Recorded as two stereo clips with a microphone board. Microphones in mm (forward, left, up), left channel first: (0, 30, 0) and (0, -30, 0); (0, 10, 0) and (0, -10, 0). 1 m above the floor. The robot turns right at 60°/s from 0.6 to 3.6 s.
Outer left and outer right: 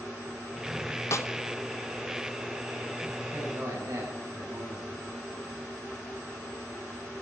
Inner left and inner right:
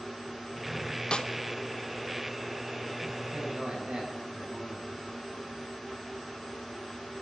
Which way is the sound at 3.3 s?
40° right (ahead or behind).